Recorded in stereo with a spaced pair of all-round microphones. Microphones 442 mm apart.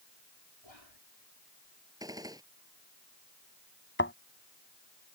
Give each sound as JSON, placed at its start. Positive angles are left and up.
{"t": 0.6, "sound": "whispering", "side_deg": 85}
{"t": 2.0, "sound": "a gunshot", "side_deg": -10}
{"t": 4.0, "sound": "a thud", "side_deg": 25}